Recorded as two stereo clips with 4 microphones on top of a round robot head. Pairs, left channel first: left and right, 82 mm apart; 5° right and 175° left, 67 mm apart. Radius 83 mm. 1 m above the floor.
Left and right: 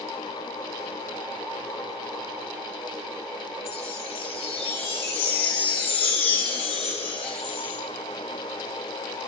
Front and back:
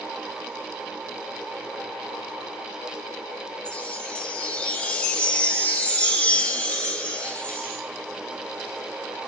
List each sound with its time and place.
3.6 s a chime: 65° left, 1.3 m